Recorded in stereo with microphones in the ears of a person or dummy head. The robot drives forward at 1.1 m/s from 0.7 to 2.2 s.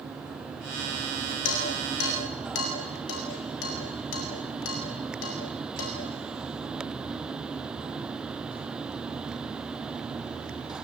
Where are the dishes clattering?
75° left (ahead or behind), 8 m; by 6.0 s 80° left, 7.5 m.